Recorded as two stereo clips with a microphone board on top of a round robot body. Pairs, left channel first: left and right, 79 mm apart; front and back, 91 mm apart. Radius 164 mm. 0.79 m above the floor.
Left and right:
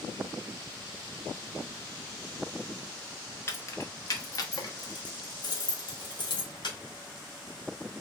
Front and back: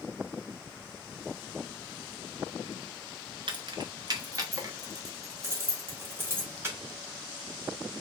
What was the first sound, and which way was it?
Keys jangling, 150° left.